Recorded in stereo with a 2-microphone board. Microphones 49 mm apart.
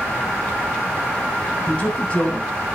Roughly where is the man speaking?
Left.